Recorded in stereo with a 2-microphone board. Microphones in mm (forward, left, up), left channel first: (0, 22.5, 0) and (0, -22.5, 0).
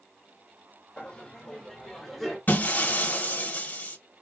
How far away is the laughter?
About 1.0 m.